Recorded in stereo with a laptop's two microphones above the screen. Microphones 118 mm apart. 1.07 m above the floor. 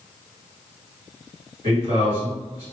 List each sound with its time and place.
1.6 s a man speaking: 35° right (ahead or behind), 1.7 m